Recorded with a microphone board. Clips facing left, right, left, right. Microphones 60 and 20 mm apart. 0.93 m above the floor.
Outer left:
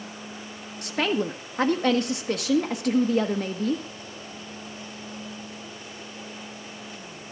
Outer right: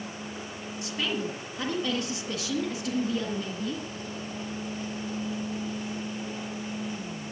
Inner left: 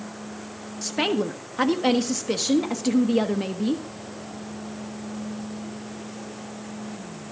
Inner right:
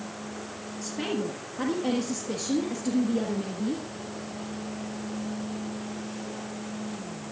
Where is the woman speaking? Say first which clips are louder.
Outer left 6 dB, inner left 7 dB; 55° left (ahead or behind), 1.3 m.